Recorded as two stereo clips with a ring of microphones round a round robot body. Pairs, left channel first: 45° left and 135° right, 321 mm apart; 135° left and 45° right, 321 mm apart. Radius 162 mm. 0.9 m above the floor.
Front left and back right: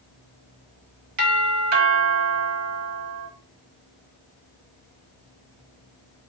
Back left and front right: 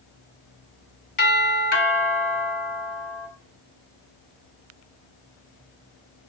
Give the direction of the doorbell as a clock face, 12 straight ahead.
6 o'clock.